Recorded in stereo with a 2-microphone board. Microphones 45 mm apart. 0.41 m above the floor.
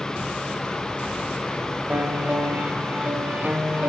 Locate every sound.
1.9 s a piano: 45° right (ahead or behind), 1.5 m